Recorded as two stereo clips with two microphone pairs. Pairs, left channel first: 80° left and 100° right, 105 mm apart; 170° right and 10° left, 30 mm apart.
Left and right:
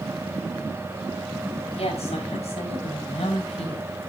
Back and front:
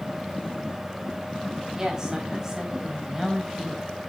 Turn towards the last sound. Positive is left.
turn(degrees=90)